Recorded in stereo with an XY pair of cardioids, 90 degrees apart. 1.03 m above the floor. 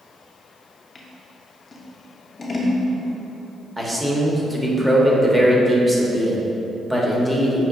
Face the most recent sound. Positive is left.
turn(degrees=-10)